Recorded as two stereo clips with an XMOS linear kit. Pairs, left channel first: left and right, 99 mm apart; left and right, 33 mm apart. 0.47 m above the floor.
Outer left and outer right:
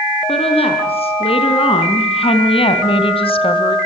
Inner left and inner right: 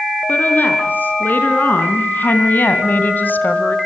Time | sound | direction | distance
0.3 | a woman speaking | 80° left | 6.5 m